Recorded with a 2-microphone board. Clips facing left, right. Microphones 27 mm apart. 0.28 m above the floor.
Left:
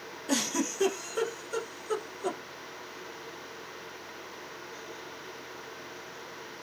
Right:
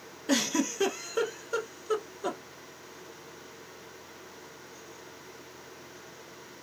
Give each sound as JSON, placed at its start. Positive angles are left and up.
{"t": 0.3, "sound": "a giggle", "side_deg": -15, "distance_m": 0.6}